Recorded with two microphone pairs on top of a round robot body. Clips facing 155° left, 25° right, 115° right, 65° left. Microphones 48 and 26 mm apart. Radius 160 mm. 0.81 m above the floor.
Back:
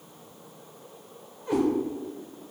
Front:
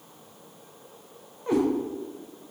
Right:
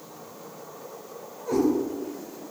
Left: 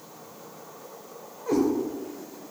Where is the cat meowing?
30° left, 0.8 m.